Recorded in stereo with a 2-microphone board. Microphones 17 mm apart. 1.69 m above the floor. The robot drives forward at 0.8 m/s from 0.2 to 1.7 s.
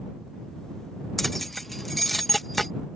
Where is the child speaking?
No child speaking in this recording.